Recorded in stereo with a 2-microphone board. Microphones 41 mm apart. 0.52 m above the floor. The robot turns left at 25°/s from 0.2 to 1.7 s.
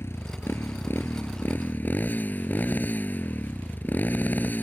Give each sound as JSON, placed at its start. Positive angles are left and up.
{"t": 0.0, "sound": "a motorcycle", "azimuth_deg": 85}